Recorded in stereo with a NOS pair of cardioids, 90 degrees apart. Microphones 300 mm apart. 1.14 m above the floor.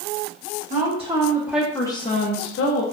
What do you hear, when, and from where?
0.7 s a woman speaking: 25° right, 1.5 m; by 2.8 s 60° left, 1.0 m